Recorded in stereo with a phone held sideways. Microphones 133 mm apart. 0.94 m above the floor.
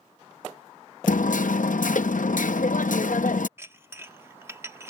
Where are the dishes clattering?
20° right (ahead or behind).